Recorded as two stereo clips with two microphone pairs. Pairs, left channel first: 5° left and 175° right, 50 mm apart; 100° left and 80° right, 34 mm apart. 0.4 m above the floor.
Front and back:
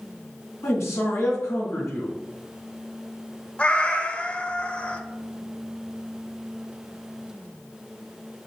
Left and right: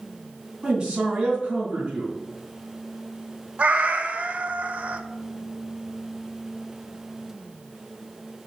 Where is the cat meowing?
55° right, 0.6 m.